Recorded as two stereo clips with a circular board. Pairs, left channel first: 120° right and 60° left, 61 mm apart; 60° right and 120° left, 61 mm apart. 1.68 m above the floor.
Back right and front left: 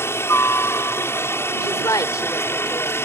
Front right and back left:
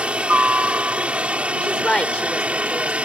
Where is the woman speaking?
135° right.